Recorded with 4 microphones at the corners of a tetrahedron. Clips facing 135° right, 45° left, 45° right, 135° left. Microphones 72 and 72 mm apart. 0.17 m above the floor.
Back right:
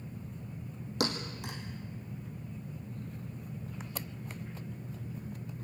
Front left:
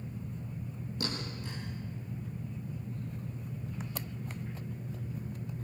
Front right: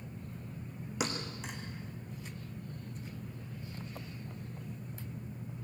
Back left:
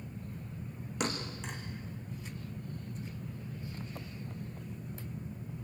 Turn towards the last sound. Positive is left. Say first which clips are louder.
# back right 5 dB, back left 1 dB
turn(degrees=-130)